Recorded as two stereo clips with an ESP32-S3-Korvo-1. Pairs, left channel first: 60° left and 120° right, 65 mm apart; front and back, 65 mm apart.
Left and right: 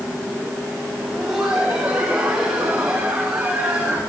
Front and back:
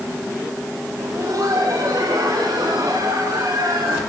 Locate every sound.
1.0 s laughter: 160° left, 4.5 m; by 4.0 s 170° left, 7 m